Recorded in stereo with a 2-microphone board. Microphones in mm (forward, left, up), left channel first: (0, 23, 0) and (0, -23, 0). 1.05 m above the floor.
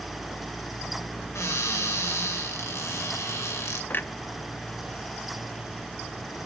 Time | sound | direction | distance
1.4 | a cupboard door | 70° left (ahead or behind) | 3 m
3.9 | a clunk | 40° left (ahead or behind) | 0.5 m